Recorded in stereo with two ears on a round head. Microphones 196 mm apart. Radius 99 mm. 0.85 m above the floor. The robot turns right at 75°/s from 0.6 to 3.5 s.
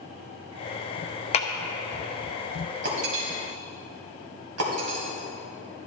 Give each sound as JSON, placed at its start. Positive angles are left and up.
{"t": 1.3, "sound": "a clap", "side_deg": 30, "distance_m": 0.8}
{"t": 2.8, "sound": "breaking glass", "side_deg": -50, "distance_m": 2.5}